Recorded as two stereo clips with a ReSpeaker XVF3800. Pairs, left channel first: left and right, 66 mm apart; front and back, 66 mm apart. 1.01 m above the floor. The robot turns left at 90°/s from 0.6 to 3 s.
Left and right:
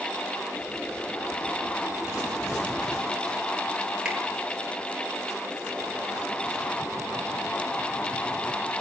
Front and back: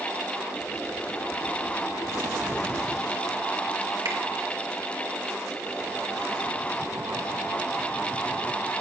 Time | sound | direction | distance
4.0 | a finger snap | 165° right | 2.5 m